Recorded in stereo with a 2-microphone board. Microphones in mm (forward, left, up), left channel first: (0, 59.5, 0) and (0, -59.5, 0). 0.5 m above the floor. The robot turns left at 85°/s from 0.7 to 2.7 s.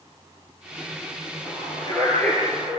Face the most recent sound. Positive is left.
turn(degrees=-25)  # may be behind; listen again after turning